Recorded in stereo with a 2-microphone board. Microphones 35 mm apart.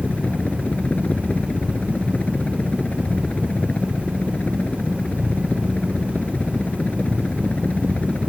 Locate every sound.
0.0 s a helicopter: 50° left (ahead or behind)